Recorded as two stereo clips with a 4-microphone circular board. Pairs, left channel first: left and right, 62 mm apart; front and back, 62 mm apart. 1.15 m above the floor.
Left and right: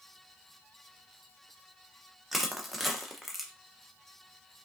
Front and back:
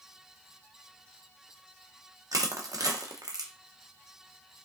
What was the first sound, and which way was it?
Crushing, straight behind.